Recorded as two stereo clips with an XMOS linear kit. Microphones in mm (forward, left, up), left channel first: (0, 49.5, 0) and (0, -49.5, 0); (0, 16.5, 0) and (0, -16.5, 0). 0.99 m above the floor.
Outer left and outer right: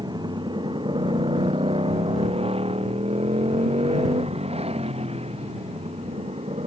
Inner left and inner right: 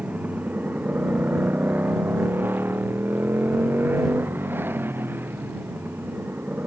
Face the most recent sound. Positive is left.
turn(degrees=-80)